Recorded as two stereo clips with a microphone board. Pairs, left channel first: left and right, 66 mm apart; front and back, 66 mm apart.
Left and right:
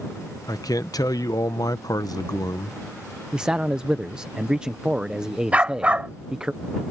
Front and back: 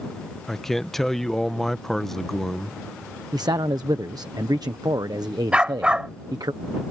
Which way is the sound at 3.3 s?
165° right.